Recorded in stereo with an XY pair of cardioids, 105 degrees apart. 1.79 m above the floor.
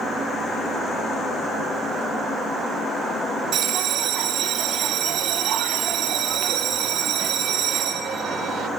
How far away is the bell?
About 0.5 m.